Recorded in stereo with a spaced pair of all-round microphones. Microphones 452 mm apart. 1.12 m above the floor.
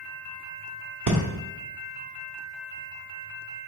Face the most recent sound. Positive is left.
turn(degrees=-45)  # may be behind; listen again after turning